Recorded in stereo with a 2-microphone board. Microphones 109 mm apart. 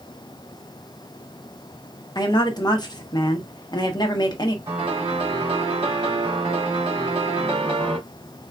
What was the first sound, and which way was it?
A woman speaking, 40° left (ahead or behind).